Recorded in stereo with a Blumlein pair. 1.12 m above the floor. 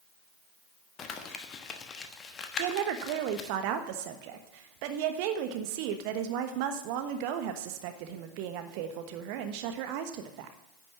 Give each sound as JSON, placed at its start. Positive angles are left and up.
{"t": 1.0, "sound": "crumpling", "azimuth_deg": 25, "distance_m": 1.2}
{"t": 2.6, "sound": "a woman speaking", "azimuth_deg": -45, "distance_m": 1.2}